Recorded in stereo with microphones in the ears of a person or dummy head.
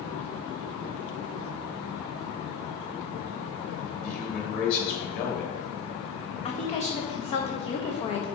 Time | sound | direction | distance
4.0 | a man speaking | 45° left (ahead or behind) | 2.5 m
6.5 | a woman speaking | 35° left (ahead or behind) | 1.3 m